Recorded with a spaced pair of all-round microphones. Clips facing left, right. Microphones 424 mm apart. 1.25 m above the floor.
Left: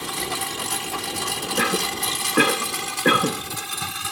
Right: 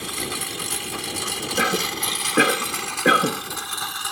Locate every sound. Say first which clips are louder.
0.0 s a lawn mower: left 1 dB; 70° left (ahead or behind); by 4.1 s 40° left (ahead or behind)
1.6 s a cough: even; 5° left (ahead or behind)